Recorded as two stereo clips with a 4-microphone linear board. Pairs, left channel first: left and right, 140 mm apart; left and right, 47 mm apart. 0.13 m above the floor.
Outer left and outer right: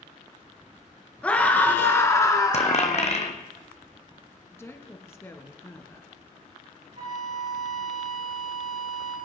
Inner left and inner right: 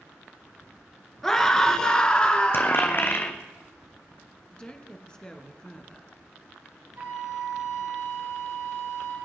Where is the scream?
10° left (ahead or behind), 1.6 m; by 3.2 s 30° left (ahead or behind), 1.3 m.